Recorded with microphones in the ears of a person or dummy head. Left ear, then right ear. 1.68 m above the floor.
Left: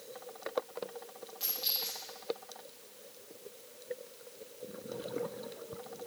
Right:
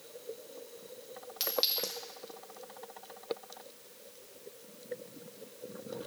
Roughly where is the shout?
No shout in this recording.